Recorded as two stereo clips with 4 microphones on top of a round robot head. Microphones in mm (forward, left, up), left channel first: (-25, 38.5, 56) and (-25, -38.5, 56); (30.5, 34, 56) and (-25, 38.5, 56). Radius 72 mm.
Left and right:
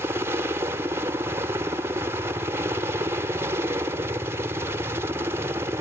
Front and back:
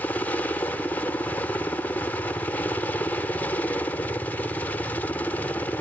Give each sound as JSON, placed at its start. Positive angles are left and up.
{"t": 0.0, "sound": "a helicopter", "azimuth_deg": -50}